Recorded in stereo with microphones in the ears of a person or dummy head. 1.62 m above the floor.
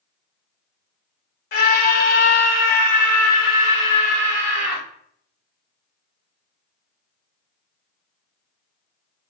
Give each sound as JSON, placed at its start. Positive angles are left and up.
{"t": 1.5, "sound": "a scream", "side_deg": 50, "distance_m": 1.0}